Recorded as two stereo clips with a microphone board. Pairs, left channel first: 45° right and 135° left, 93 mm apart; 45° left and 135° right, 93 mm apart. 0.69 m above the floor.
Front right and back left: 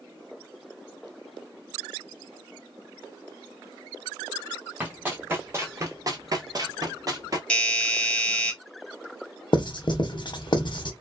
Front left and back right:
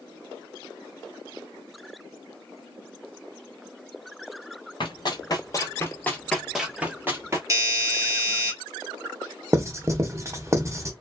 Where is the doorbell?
115° right, 1.2 m.